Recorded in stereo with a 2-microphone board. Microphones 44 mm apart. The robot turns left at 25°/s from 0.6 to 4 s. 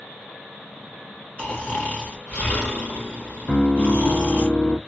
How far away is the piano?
About 0.8 m.